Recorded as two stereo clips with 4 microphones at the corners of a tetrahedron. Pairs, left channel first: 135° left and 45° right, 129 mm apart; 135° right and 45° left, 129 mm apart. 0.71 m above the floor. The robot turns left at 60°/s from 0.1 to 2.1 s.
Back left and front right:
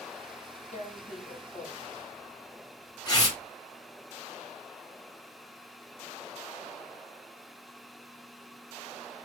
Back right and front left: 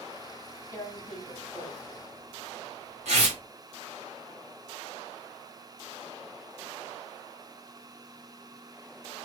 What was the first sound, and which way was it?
Tearing paper, 160° left.